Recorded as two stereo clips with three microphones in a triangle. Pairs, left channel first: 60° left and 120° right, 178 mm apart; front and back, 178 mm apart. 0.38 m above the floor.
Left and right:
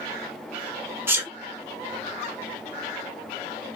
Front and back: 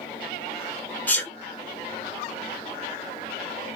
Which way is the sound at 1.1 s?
60° right.